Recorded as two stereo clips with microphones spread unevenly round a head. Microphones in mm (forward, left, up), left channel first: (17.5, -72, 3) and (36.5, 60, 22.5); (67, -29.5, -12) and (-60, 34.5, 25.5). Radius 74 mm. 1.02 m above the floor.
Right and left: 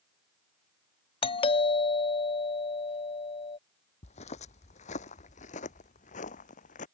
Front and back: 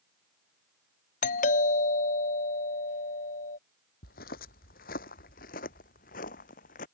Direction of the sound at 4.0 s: 60° right.